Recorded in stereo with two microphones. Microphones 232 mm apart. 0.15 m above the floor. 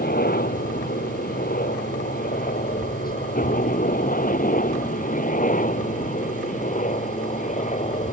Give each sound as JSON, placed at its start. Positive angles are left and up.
{"t": 0.0, "sound": "a helicopter", "side_deg": 40}